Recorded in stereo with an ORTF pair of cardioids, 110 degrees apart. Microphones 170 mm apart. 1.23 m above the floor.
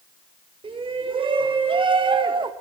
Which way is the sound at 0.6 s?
30° right.